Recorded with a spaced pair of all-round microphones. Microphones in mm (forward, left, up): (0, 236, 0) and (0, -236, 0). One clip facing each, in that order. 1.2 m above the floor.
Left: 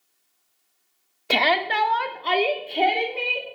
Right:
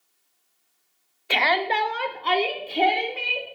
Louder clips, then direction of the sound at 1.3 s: Left 1 dB; 60° left (ahead or behind).